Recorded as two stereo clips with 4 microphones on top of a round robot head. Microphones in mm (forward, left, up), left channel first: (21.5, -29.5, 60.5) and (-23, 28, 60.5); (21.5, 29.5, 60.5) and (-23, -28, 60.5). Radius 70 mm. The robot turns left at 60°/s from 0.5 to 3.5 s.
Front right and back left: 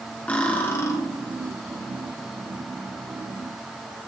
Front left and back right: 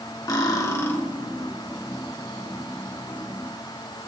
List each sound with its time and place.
0.3 s cutlery clinking: 15° left, 2 m; by 1.0 s 10° right, 2 m